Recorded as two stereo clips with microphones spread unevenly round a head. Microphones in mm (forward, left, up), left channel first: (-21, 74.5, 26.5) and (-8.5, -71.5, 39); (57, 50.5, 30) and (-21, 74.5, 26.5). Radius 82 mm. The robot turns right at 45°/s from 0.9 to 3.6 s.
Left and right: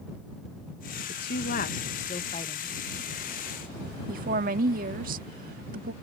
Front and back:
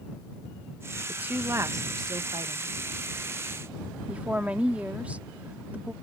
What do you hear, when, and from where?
1.1 s a woman speaking: 90° left; by 2.8 s 160° left
4.1 s a woman speaking: 115° right